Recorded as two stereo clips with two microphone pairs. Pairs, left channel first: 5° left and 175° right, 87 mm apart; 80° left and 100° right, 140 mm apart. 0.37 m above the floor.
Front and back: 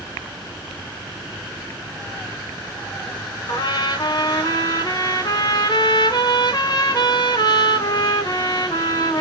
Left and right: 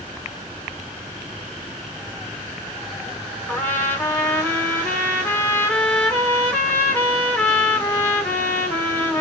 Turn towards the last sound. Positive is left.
turn(degrees=10)